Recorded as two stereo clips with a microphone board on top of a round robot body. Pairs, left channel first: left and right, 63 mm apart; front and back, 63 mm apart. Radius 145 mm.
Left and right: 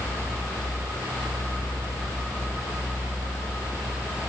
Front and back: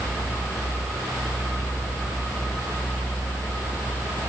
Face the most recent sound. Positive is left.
No sound to turn to.